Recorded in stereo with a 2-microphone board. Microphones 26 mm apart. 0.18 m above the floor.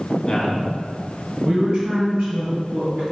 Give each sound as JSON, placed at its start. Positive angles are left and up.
{"t": 0.3, "sound": "a man speaking", "side_deg": 30, "distance_m": 1.9}